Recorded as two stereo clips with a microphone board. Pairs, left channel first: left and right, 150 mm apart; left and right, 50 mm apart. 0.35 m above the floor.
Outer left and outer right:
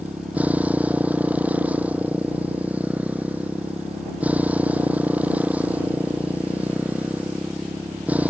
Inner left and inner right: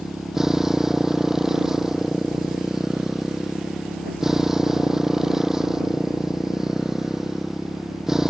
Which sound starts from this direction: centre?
A motorcycle, at 0.0 s.